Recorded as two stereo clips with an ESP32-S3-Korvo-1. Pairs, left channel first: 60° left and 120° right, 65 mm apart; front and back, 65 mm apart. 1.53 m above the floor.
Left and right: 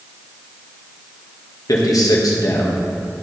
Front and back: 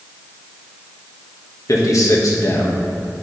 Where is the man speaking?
35° left, 1.6 m.